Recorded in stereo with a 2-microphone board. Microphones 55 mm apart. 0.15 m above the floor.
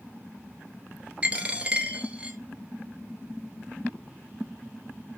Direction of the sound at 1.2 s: 25° right (ahead or behind).